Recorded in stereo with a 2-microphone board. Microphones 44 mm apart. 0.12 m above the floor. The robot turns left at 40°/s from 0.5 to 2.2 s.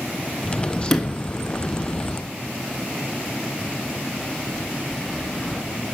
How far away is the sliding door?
About 1.3 m.